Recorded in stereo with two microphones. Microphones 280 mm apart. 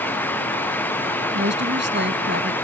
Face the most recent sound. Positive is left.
turn(degrees=-40)  # may be behind; listen again after turning